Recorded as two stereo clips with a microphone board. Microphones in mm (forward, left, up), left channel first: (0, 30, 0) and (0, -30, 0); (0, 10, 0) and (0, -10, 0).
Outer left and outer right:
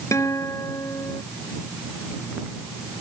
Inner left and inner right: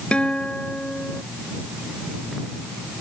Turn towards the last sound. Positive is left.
turn(degrees=55)  # may be behind; listen again after turning